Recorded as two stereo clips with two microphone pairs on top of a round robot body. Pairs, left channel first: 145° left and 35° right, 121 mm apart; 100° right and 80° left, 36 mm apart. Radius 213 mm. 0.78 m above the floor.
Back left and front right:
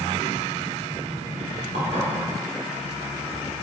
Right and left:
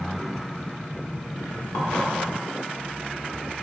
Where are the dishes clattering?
70° right, 2.5 m.